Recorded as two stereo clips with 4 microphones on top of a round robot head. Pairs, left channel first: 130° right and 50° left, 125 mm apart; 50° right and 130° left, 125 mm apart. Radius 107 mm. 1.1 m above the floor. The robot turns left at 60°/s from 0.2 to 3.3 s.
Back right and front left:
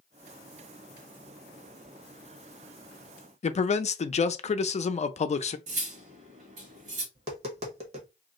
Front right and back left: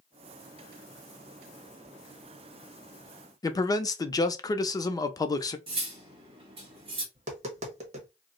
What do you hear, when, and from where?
3.4 s a man speaking: 110° right, 0.6 m
5.7 s cutlery clinking: 80° left, 1.2 m
7.2 s tapping: 90° left, 0.9 m